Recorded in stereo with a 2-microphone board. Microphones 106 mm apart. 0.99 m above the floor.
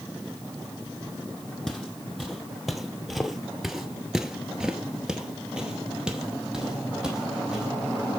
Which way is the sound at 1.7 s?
Centre (ahead or behind).